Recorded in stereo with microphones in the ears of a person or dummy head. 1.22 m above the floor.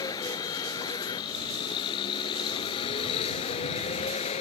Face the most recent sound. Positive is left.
turn(degrees=30)  # may be behind; listen again after turning